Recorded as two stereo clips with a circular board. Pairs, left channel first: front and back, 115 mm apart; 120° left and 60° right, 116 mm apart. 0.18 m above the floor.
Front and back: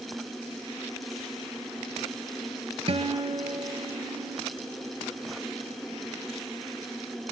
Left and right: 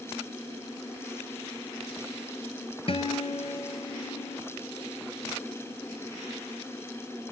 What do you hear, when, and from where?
2.9 s a guitar: 150° left, 1.1 m